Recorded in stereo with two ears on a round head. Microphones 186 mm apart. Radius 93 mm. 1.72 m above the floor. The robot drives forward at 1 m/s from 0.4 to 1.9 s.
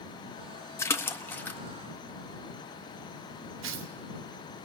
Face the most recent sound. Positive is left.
turn(degrees=-65)  # may be behind; listen again after turning